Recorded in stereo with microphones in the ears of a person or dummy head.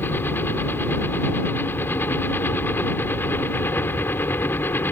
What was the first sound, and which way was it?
A helicopter, 10° left (ahead or behind).